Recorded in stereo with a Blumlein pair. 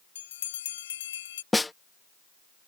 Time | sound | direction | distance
0.1 | a bell | 60° left | ?
1.5 | a snare drum | 5° left | ?